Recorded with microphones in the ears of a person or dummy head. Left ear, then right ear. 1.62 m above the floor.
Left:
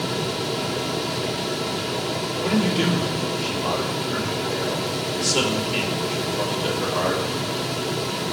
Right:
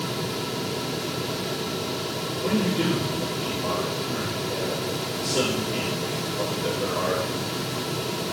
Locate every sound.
2.4 s a man speaking: 30° left (ahead or behind), 3.5 m